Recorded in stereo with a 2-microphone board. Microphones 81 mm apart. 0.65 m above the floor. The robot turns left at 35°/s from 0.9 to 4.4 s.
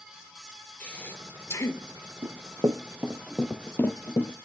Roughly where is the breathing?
Centre.